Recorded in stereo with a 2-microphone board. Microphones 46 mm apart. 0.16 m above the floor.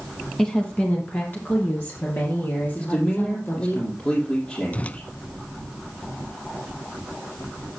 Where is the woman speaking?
15° left (ahead or behind), 1.4 m; by 3.8 s 55° left (ahead or behind), 5.5 m.